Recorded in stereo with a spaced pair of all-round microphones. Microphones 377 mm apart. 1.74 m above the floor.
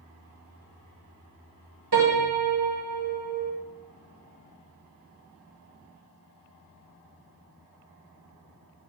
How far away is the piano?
About 2 m.